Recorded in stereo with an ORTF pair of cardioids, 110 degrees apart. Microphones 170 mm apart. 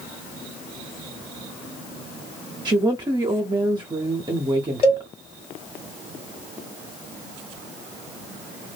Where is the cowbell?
40° left, 1.1 m.